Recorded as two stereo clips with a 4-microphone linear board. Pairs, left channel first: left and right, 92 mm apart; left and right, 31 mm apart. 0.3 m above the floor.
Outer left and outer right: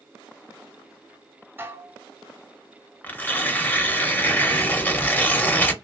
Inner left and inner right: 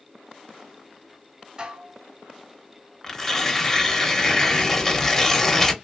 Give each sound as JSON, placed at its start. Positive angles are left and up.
{"t": 1.6, "sound": "dishes clattering", "side_deg": -25, "distance_m": 0.9}
{"t": 3.0, "sound": "tearing paper", "side_deg": 20, "distance_m": 0.7}